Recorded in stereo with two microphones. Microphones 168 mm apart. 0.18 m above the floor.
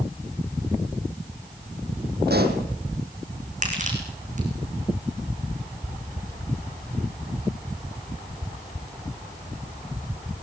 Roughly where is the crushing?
Right.